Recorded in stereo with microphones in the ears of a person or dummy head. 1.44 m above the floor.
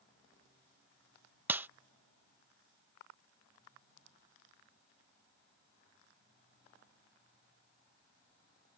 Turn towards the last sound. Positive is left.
turn(degrees=-10)  # may be behind; listen again after turning